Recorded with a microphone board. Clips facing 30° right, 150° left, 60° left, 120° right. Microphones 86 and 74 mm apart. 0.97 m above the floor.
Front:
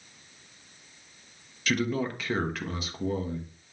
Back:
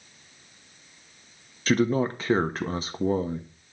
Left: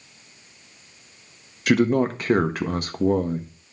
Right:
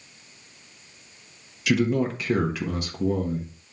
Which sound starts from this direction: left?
A man speaking, at 1.7 s.